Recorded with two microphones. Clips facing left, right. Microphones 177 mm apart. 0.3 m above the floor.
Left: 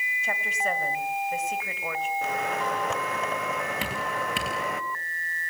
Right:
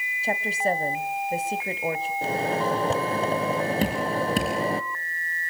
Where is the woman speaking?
35° right (ahead or behind), 1.5 m.